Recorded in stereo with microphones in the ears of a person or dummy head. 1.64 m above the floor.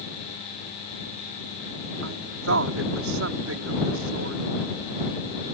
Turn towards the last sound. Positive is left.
turn(degrees=-80)